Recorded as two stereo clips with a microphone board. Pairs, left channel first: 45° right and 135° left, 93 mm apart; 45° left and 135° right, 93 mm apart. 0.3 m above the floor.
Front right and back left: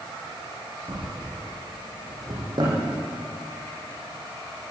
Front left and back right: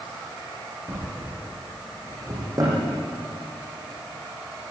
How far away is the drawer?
About 8.5 m.